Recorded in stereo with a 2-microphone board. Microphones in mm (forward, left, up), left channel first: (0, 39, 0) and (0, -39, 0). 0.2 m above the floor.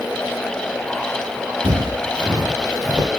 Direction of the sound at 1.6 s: 85° right.